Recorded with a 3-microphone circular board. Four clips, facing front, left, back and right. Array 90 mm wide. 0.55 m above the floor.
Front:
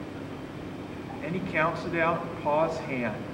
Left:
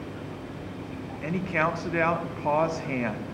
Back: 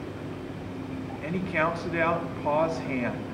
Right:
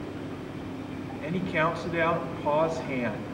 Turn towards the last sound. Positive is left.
turn(degrees=85)